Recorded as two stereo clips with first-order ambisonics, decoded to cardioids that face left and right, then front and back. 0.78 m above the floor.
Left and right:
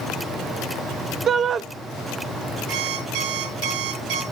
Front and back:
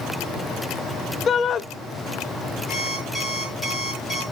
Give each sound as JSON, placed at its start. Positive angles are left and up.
{"t": 1.3, "sound": "a shout", "azimuth_deg": -45, "distance_m": 0.5}
{"t": 2.7, "sound": "an alarm clock", "azimuth_deg": -90, "distance_m": 9.0}